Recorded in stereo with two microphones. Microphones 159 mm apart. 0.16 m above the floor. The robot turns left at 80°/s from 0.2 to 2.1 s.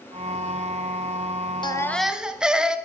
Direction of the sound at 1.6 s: 30° left.